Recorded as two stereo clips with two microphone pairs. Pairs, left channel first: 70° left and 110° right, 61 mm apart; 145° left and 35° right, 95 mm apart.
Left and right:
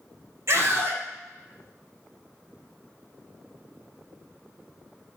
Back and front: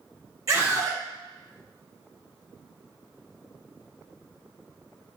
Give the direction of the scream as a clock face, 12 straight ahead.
3 o'clock.